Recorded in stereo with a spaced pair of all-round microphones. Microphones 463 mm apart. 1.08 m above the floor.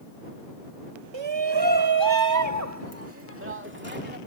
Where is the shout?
70° right (ahead or behind); by 4.2 s 20° right (ahead or behind).